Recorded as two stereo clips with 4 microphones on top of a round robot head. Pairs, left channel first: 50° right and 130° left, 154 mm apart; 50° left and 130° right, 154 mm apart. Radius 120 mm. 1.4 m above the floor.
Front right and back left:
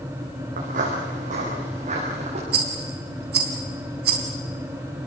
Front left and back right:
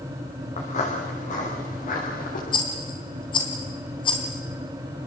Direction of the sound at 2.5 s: 105° left.